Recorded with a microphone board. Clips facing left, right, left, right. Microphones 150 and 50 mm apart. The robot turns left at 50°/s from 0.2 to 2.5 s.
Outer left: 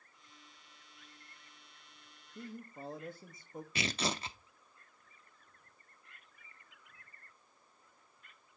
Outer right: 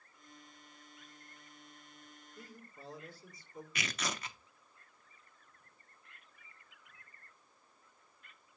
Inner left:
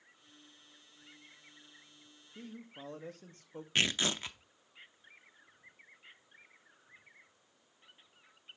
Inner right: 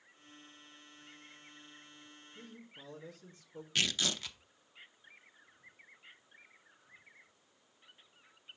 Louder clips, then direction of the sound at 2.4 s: Outer left 9 dB, inner left 6 dB; 60° left (ahead or behind).